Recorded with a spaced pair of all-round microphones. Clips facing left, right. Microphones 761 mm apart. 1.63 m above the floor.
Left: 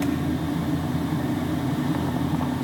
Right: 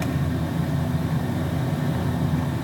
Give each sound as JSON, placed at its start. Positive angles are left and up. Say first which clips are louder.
{"t": 0.0, "sound": "a fan", "louder": "left 3 dB", "side_deg": -40, "distance_m": 1.4}